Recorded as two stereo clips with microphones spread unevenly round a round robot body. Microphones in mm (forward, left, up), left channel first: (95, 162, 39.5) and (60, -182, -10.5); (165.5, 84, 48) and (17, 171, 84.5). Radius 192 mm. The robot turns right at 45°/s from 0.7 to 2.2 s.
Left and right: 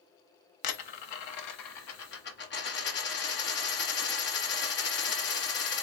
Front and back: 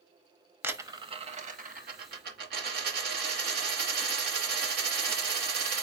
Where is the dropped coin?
75° left, 0.7 m; by 5.8 s 145° left, 0.7 m.